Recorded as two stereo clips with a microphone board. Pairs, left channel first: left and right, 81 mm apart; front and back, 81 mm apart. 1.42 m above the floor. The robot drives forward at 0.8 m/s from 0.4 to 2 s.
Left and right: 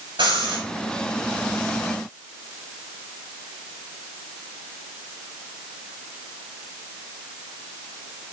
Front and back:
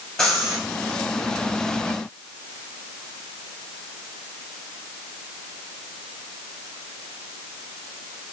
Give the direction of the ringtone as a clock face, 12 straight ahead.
No ringtone in this recording.